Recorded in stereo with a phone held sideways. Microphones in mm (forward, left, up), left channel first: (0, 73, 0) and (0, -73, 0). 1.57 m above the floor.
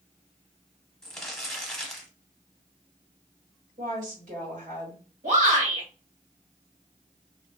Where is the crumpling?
5° left (ahead or behind), 0.8 m.